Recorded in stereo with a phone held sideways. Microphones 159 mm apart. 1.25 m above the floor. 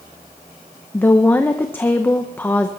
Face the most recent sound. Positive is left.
turn(degrees=15)  # may be behind; listen again after turning